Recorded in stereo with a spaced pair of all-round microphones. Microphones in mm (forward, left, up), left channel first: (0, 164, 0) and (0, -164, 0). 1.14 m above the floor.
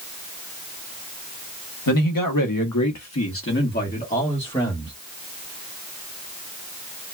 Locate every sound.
1.9 s a man speaking: 70° left (ahead or behind), 1.0 m; by 4.9 s 10° left (ahead or behind), 1.6 m